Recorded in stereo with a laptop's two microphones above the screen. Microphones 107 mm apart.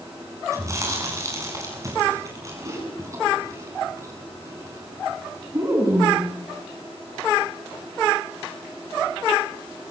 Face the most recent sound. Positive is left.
turn(degrees=-30)  # may be behind; listen again after turning